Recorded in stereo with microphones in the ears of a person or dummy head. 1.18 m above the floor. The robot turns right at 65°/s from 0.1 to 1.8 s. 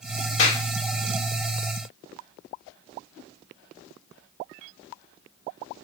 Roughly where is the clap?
Left.